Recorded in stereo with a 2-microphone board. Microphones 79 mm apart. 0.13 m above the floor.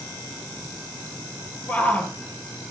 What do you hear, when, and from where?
1.7 s a shout: 20° left (ahead or behind), 3 m